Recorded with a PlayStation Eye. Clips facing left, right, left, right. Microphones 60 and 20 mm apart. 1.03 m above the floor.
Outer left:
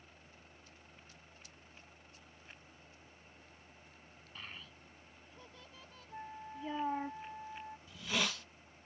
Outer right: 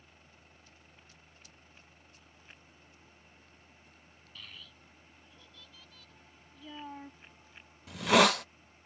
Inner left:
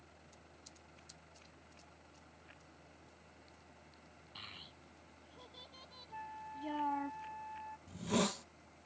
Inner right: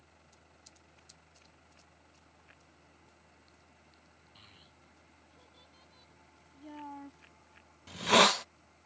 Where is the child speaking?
30° left (ahead or behind).